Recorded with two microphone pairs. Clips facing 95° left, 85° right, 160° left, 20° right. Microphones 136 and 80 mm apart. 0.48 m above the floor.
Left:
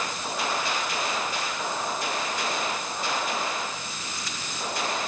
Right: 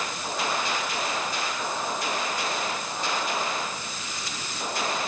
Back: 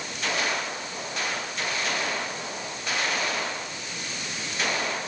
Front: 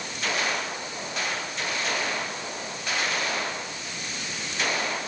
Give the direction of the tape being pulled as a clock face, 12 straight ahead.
I don't hear tape being pulled.